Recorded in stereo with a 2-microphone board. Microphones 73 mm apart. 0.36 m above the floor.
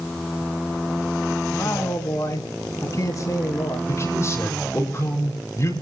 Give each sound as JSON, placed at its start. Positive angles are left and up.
{"t": 1.5, "sound": "a man speaking", "side_deg": 50, "distance_m": 3.0}
{"t": 3.9, "sound": "a man speaking", "side_deg": 40, "distance_m": 5.5}